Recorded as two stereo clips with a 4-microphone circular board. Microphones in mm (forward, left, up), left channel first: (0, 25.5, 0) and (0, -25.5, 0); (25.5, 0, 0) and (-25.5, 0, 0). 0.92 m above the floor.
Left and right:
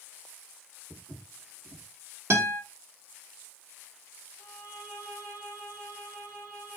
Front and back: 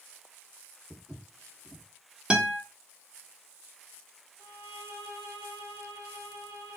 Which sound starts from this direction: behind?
A violin, at 4.4 s.